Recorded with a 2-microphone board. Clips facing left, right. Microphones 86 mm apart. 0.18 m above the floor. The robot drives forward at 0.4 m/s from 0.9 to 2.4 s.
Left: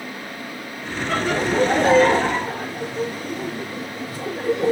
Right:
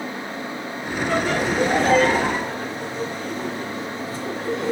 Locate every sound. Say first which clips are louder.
1.1 s laughter: left 1 dB; 10° left (ahead or behind), 2.5 m; by 4.7 s 5° left (ahead or behind), 2.5 m